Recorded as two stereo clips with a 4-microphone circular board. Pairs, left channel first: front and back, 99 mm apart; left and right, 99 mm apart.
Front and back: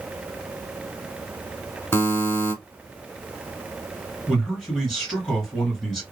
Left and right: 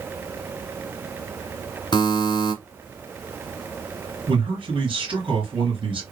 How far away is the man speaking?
About 3 m.